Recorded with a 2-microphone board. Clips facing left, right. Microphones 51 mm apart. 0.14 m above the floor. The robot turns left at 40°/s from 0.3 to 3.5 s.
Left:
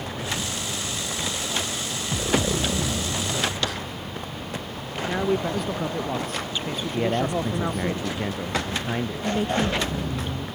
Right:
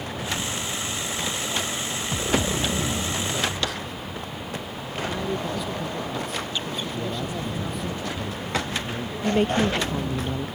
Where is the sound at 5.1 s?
50° left (ahead or behind).